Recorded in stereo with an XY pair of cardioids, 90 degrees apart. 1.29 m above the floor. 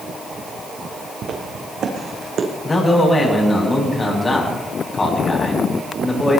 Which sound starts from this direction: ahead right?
Footsteps, at 1.2 s.